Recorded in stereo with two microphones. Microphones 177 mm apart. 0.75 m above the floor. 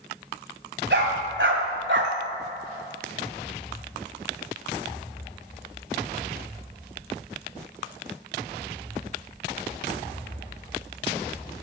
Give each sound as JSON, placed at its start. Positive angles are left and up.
{"t": 0.9, "sound": "a dog barking", "side_deg": -75, "distance_m": 2.0}